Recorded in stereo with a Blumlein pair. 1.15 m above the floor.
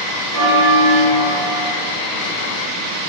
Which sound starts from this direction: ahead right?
A bell, at 0.3 s.